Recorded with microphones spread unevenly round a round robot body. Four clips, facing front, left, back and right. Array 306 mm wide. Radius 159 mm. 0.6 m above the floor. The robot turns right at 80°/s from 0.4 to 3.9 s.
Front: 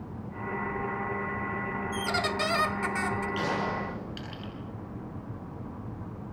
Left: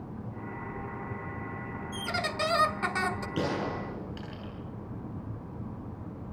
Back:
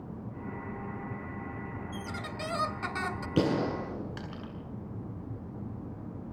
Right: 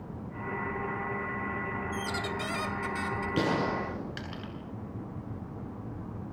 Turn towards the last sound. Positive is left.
turn(degrees=-130)